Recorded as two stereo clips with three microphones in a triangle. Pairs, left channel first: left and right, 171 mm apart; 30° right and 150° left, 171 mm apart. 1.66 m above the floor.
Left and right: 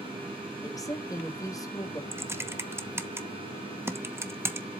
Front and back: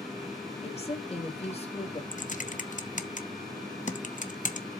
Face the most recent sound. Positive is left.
turn(degrees=-15)